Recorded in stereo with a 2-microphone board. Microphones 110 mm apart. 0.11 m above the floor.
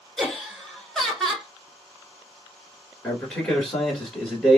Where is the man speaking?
15° left (ahead or behind), 1.2 m.